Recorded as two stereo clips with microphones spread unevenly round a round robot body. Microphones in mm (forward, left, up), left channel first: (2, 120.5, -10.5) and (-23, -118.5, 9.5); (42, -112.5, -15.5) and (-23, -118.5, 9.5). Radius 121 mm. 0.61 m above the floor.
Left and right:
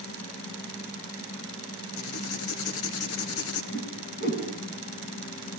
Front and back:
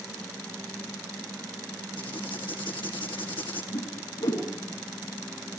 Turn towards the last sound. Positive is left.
turn(degrees=30)